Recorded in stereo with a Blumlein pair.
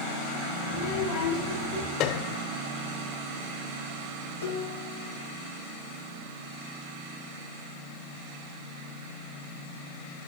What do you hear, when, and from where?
0.7 s a child speaking: 55° left, 3.5 m; by 1.9 s 45° left, 4 m
2.0 s a piano: 35° left, 0.6 m
4.4 s dishes clattering: 65° left, 1.7 m